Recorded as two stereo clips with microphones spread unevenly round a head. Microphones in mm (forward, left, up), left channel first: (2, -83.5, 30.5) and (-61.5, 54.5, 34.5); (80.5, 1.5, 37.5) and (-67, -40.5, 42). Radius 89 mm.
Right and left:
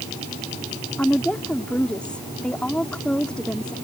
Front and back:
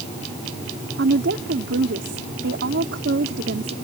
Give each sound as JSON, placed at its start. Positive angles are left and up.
{"t": 1.0, "sound": "a woman speaking", "azimuth_deg": -150}